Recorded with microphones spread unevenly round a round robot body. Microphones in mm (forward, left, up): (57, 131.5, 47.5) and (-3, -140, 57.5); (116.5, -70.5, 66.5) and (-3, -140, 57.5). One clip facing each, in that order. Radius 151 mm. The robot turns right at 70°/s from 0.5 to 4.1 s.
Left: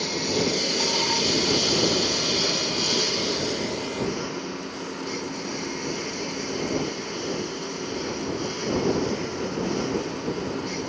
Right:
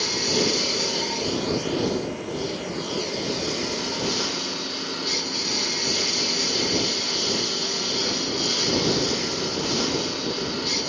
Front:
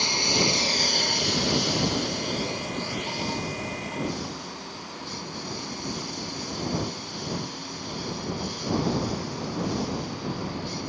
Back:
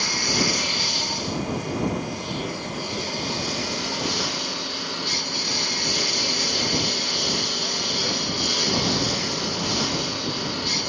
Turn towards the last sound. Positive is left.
turn(degrees=-145)